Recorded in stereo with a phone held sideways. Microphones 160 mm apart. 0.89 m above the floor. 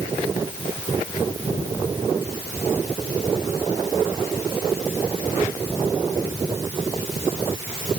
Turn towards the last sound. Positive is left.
No sound to turn to.